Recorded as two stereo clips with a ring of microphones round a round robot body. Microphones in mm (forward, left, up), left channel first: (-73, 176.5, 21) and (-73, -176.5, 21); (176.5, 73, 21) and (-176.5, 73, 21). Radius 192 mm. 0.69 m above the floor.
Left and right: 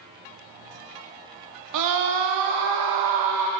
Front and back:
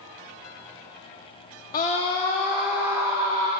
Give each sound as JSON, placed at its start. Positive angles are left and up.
{"t": 1.7, "sound": "a scream", "azimuth_deg": -65, "distance_m": 0.9}